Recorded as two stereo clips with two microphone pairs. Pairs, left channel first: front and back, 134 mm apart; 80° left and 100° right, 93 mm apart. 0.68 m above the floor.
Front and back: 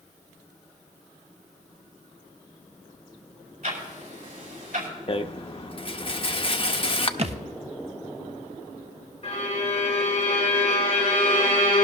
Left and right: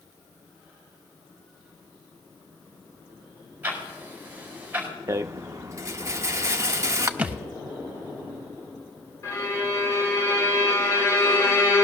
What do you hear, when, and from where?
3.6 s ticking: 170° right, 4.5 m
5.1 s a rattle: 45° right, 0.6 m
7.2 s a thud: 170° right, 0.6 m
9.2 s a violin: 30° left, 2.5 m